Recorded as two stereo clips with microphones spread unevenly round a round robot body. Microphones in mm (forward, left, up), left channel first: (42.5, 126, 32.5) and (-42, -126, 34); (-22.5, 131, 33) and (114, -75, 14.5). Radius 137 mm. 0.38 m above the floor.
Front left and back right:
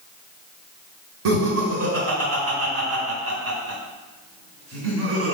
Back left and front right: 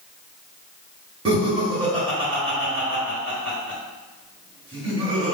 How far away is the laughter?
About 1.4 m.